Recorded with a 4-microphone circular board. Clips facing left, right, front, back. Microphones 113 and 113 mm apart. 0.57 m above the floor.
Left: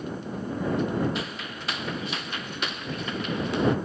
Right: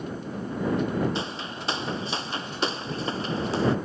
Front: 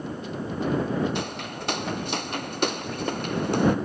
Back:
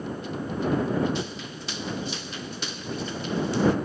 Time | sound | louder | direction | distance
1.1 | footsteps | right 2 dB, front 2 dB | 30° right | ?